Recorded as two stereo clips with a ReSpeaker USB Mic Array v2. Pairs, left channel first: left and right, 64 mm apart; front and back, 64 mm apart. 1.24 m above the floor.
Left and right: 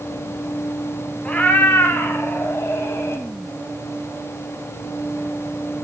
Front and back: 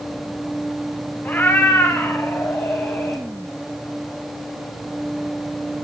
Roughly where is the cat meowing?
Ahead left.